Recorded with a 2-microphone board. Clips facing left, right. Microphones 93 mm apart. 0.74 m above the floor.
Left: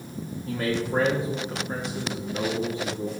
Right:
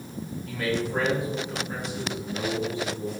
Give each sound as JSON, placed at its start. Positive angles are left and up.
{"t": 0.5, "sound": "a man speaking", "side_deg": 30, "distance_m": 1.1}